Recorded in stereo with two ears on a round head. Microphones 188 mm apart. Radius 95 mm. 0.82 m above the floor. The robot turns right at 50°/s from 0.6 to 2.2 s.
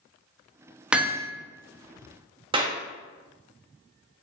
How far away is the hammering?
About 0.8 m.